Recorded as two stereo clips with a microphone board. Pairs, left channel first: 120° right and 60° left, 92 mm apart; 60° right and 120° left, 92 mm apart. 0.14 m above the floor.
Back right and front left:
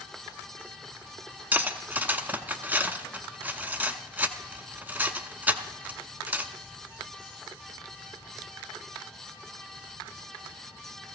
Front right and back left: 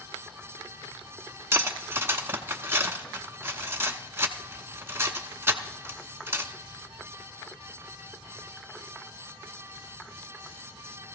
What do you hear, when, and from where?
1.5 s cutlery clinking: 105° left, 0.7 m